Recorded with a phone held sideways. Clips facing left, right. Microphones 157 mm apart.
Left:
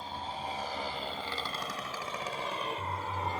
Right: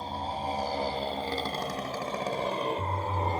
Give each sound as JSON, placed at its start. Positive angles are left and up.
{"t": 0.0, "sound": "a motorcycle", "side_deg": -40}